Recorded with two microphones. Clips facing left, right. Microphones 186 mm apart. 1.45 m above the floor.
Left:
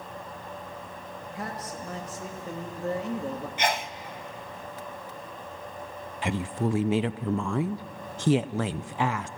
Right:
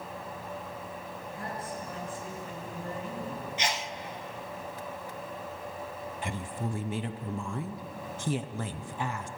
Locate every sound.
1.3 s a man speaking: 70° left (ahead or behind), 2.5 m
3.6 s a sneeze: 50° left (ahead or behind), 0.7 m
6.2 s a woman speaking: 80° left, 0.6 m